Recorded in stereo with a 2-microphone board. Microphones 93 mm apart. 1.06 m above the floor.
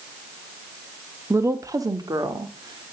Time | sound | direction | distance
1.3 | a woman speaking | 30° right (ahead or behind) | 1.0 m